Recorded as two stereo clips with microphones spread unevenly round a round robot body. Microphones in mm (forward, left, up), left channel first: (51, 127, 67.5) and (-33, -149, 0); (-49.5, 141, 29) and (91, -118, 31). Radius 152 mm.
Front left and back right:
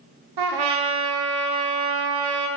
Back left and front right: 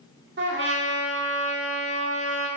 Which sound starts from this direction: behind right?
A trumpet, at 0.4 s.